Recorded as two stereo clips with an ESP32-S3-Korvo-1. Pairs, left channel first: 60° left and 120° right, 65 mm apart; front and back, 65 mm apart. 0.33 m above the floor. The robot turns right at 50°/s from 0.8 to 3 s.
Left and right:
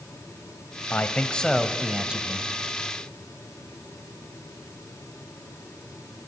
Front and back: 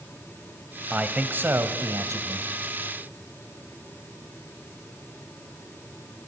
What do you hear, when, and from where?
0.9 s a man speaking: 110° left, 1.4 m; by 2.5 s 170° right, 1.4 m